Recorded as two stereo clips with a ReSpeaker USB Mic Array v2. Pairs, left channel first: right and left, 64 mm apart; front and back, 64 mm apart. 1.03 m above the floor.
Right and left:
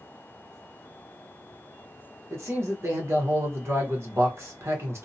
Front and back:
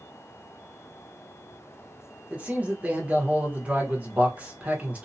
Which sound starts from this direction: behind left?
A man speaking, at 2.3 s.